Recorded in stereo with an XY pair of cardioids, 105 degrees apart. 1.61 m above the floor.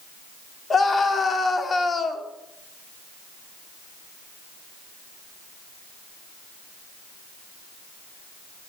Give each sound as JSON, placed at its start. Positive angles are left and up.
{"t": 0.7, "sound": "a scream", "azimuth_deg": 35, "distance_m": 3.5}